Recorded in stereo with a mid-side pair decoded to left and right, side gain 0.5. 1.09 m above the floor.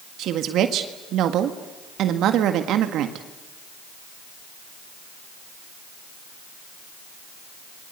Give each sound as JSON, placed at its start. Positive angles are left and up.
{"t": 0.2, "sound": "a woman speaking", "azimuth_deg": -70, "distance_m": 1.8}